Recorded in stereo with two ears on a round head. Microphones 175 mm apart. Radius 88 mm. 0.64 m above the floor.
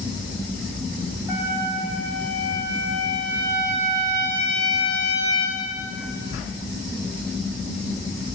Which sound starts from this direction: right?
A trumpet, at 1.3 s.